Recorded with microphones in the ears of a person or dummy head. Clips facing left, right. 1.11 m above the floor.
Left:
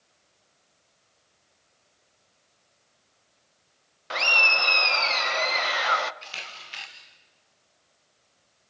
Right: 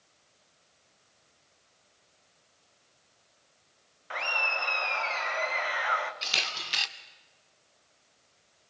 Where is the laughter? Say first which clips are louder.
Left 5 dB; 50° left (ahead or behind), 0.9 m.